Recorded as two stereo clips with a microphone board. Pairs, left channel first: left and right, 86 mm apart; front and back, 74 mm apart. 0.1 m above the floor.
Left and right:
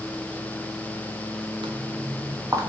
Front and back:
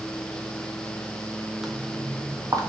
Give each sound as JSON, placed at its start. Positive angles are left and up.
{"t": 1.6, "sound": "footsteps", "azimuth_deg": -95, "distance_m": 0.7}